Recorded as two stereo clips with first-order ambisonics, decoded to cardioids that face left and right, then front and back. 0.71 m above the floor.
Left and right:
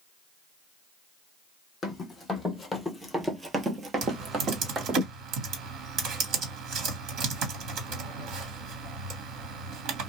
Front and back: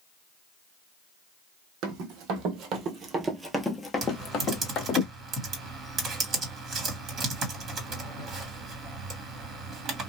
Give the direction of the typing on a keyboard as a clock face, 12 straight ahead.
4 o'clock.